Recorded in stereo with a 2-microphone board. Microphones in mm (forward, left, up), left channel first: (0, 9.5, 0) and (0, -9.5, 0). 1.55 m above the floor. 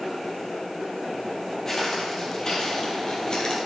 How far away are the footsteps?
About 2.5 m.